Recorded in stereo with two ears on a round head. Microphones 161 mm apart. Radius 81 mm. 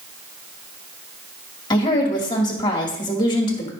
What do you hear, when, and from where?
1.7 s a woman speaking: 25° left (ahead or behind), 2 m